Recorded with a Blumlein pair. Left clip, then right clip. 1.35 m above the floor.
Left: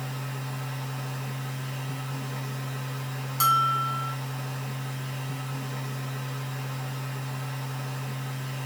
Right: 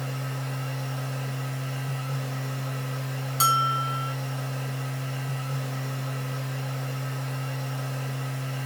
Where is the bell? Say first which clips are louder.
Even; 10° right, 0.9 m.